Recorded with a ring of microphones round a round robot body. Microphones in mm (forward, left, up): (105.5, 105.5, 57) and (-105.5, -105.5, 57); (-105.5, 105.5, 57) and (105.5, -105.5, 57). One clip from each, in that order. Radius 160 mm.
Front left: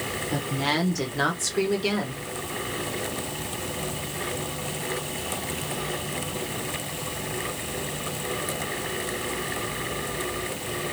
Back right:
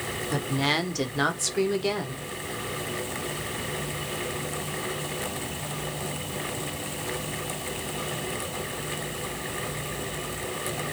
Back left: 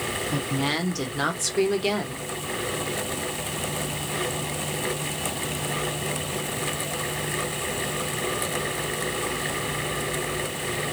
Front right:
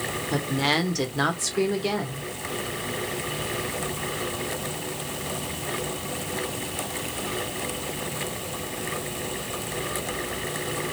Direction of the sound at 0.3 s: 100° right.